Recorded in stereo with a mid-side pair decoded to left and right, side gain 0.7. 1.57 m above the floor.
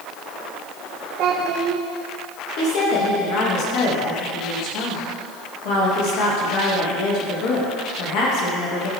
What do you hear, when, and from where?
1.2 s a child speaking: 60° right, 1.2 m
2.6 s a woman speaking: 60° left, 2.5 m